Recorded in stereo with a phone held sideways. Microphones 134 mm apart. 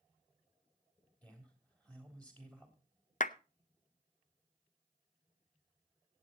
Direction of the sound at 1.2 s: 10° left (ahead or behind).